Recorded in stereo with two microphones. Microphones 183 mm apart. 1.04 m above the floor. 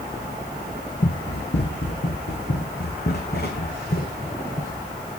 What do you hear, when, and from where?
1.0 s running footsteps: 60° left (ahead or behind), 2.5 m; by 4.8 s 50° left (ahead or behind), 4 m